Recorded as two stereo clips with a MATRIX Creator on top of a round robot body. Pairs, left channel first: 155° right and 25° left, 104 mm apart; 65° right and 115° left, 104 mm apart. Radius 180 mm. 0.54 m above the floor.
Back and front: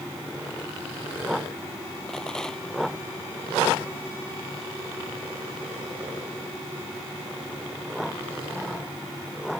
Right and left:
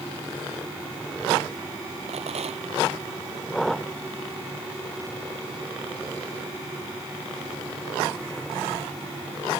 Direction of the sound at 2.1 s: 120° left.